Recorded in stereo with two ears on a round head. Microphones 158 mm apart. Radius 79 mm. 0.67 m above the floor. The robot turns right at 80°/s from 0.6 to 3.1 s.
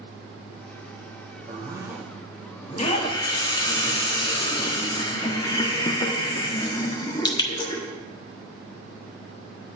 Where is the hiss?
40° left (ahead or behind), 1.3 m; by 7.8 s 25° left (ahead or behind), 1.3 m.